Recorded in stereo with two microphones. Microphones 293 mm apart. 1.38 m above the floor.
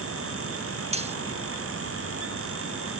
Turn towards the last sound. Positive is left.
turn(degrees=-20)  # may be behind; listen again after turning